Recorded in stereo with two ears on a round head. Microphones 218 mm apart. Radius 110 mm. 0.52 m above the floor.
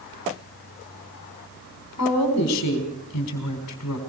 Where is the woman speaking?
75° left (ahead or behind), 4 m.